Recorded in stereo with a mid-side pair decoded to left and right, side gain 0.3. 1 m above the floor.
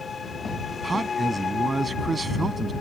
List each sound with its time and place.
0.8 s a man speaking: 45° right